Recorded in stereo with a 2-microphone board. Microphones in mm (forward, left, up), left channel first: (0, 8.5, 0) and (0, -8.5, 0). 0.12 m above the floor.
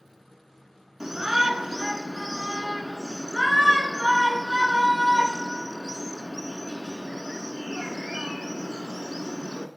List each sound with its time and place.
1.0 s a shout: 10° right (ahead or behind), 1.1 m